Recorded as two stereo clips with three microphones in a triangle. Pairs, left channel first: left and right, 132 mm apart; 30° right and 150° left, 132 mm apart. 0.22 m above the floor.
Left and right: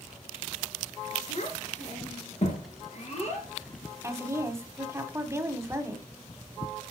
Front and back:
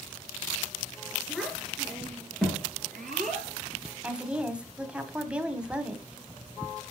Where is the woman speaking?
135° right, 1.1 m.